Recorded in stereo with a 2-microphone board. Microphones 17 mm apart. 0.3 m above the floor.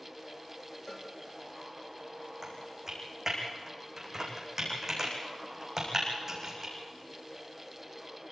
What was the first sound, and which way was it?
A cowbell, 50° left (ahead or behind).